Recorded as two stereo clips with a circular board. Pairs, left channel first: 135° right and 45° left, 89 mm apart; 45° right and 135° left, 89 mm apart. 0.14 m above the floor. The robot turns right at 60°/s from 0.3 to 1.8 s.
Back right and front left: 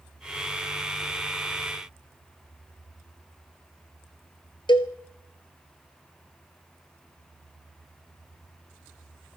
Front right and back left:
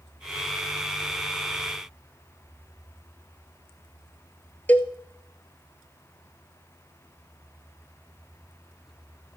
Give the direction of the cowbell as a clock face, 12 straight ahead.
4 o'clock.